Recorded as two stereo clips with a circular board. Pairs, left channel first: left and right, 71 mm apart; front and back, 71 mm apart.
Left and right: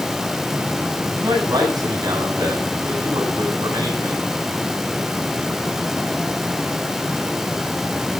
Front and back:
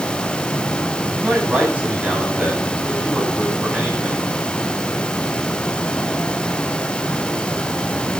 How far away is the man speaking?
About 8.5 m.